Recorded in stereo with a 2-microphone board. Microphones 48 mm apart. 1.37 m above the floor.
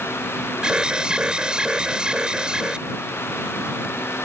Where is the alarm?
20° right (ahead or behind).